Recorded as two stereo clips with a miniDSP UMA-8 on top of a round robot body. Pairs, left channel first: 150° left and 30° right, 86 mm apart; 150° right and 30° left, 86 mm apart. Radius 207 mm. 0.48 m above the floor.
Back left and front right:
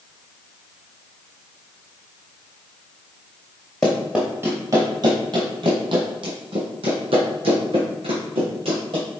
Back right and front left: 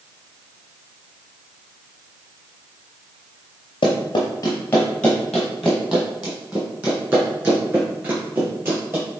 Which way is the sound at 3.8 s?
130° right.